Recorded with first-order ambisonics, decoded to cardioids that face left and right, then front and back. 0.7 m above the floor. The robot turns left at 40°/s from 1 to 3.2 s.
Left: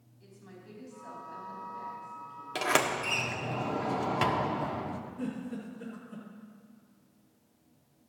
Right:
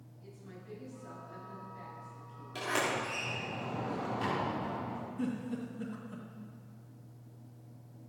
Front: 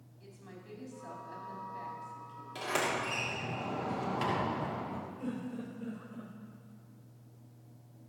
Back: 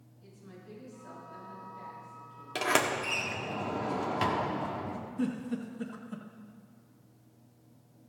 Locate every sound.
0.2 s a woman speaking: 30° left, 4.5 m; by 2.5 s 30° right, 4.5 m
2.5 s a sliding door: 140° left, 1.3 m; by 5.0 s 115° left, 1.3 m
5.2 s a giggle: 165° right, 2.5 m